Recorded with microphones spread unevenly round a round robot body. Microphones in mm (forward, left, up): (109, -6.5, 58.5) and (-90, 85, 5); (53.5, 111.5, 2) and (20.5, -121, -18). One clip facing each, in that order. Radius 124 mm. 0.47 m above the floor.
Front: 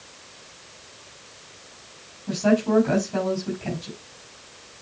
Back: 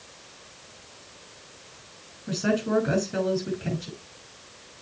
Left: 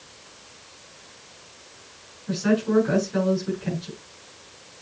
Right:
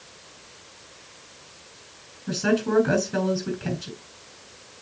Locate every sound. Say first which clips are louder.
2.3 s a woman speaking: front 5 dB, left 1 dB; 135° right, 6 m